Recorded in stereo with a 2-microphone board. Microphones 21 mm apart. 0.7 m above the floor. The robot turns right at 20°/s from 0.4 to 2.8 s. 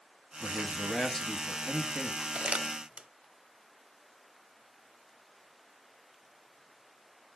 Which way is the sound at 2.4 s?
75° right (ahead or behind).